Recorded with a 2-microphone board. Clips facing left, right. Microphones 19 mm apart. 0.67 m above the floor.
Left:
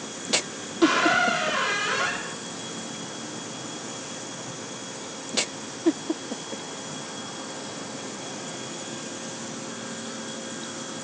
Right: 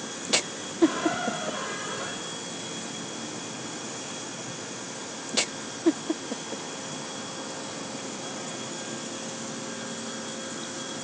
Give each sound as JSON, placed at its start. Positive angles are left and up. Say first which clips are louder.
{"t": 0.8, "sound": "a squeak", "louder": "left 4 dB", "side_deg": 70, "distance_m": 0.6}